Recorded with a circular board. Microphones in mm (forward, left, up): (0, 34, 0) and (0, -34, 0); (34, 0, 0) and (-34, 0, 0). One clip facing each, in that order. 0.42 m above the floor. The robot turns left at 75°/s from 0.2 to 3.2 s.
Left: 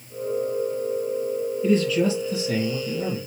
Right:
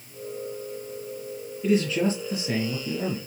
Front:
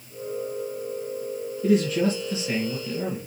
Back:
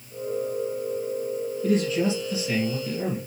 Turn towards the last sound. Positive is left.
turn(degrees=-130)